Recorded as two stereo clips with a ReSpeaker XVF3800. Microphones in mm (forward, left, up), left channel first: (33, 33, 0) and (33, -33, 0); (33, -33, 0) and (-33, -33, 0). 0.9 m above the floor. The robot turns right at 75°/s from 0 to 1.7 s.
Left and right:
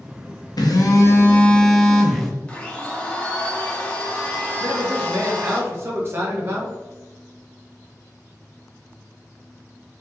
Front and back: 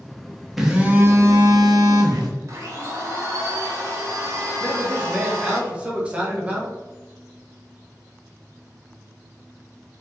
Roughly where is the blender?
Behind left.